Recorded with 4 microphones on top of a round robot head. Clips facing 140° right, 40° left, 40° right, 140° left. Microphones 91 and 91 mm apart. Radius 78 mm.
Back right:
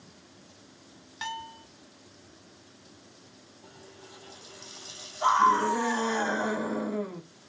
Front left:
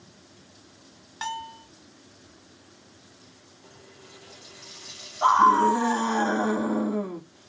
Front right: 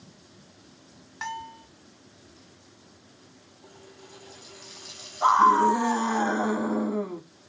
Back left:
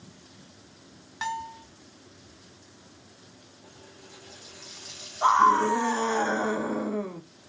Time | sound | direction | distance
1.2 | a bell | 55° left | 0.5 m
3.6 | a running tap | 80° right | 1.4 m
5.2 | a scream | 30° left | 1.3 m